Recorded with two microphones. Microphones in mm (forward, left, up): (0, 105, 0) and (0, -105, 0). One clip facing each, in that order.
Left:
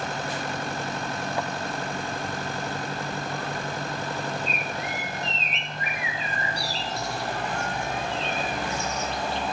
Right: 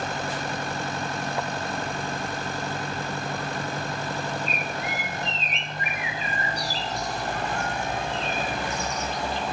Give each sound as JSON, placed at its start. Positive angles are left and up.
{"t": 4.5, "sound": "a bird", "side_deg": 30, "distance_m": 1.5}